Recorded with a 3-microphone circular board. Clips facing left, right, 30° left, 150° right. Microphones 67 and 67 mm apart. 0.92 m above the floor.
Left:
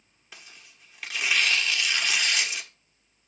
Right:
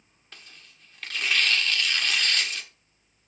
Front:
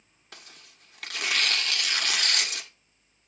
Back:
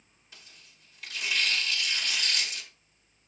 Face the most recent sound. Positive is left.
turn(degrees=10)